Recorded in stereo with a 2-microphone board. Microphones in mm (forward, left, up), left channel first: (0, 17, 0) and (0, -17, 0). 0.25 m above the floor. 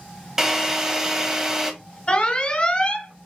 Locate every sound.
0.4 s a drill: 10° right (ahead or behind), 1.1 m
2.1 s an alarm: 30° left (ahead or behind), 1.4 m